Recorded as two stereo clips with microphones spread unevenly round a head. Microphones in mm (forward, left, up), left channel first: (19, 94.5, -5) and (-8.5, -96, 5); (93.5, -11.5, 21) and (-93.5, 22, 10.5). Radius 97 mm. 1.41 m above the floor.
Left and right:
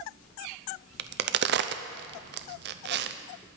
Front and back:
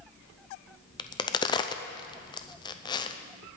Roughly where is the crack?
Right.